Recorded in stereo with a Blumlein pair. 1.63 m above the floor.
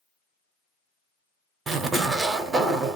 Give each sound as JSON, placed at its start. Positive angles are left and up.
{"t": 1.7, "sound": "a zipper", "azimuth_deg": -15, "distance_m": 0.6}